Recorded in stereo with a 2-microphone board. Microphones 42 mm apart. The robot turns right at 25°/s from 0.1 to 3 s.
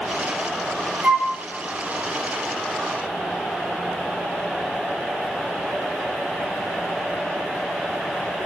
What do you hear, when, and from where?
1.0 s a flute: 30° right (ahead or behind), 1.0 m; by 1.3 s 20° right (ahead or behind), 1.0 m